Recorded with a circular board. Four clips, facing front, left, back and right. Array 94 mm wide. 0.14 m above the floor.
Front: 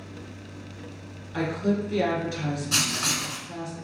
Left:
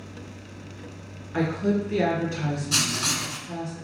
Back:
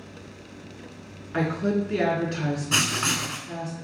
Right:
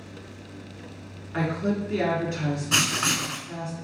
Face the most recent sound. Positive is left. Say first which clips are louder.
# right 3 dB, back 3 dB
turn(degrees=-125)